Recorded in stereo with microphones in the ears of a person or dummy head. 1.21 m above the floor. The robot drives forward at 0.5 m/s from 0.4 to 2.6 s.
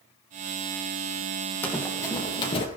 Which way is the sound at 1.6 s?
10° left (ahead or behind).